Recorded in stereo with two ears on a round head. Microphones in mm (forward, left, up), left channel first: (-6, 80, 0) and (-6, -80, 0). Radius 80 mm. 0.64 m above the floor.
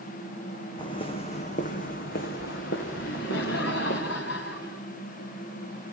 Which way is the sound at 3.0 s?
70° left (ahead or behind).